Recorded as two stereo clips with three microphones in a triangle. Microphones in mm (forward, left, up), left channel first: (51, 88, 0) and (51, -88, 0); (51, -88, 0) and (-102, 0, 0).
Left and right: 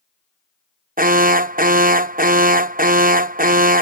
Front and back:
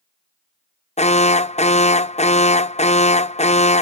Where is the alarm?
75° right.